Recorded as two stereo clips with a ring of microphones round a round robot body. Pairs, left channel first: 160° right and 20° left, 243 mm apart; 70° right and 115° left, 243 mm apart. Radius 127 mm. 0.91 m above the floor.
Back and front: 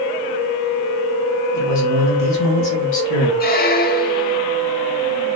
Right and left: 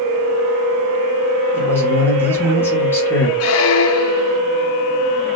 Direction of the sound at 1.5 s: 150° right.